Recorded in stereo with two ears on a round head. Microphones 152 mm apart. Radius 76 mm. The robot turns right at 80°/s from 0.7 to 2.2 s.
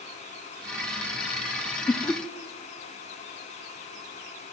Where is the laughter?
20° left (ahead or behind), 0.6 m; by 2.2 s 5° left (ahead or behind), 0.6 m.